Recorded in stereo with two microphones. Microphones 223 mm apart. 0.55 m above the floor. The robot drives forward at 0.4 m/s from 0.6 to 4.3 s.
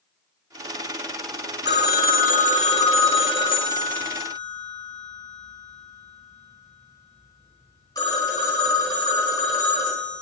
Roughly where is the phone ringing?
Left.